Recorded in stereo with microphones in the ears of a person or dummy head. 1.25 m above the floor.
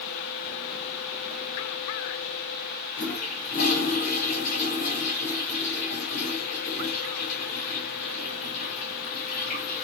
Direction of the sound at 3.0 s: 45° left (ahead or behind).